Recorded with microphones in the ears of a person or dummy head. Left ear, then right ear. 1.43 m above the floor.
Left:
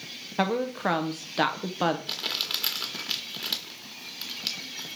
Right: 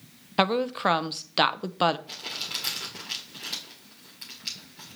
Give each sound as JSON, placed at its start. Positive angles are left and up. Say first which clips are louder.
{"t": 0.4, "sound": "a woman speaking", "louder": "right 3 dB", "side_deg": -35, "distance_m": 0.6}
{"t": 2.1, "sound": "crumpling", "louder": "left 4 dB", "side_deg": 40, "distance_m": 1.6}